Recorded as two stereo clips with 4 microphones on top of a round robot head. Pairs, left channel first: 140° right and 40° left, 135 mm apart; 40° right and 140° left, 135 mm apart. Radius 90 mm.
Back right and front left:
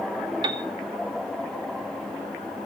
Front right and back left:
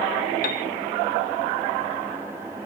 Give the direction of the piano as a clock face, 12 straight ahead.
1 o'clock.